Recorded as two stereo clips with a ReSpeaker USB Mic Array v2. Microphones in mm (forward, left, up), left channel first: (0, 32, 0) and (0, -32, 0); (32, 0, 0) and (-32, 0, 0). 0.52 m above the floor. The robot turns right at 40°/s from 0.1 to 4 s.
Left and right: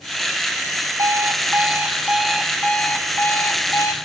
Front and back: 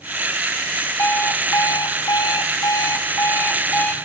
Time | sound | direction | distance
1.0 | an alarm clock | 55° right | 2 m